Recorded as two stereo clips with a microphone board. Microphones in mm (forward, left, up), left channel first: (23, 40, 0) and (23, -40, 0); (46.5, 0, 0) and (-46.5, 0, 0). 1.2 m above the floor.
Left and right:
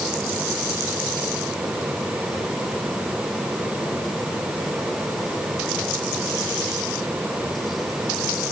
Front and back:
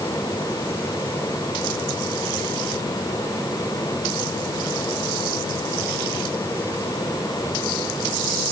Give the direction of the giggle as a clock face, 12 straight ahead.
I don't hear a giggle.